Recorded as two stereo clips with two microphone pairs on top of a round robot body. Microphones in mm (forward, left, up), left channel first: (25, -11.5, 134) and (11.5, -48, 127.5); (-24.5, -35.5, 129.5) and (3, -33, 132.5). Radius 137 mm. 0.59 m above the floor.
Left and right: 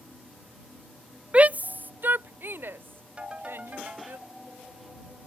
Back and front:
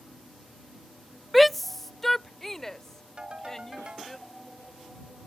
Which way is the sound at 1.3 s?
95° right.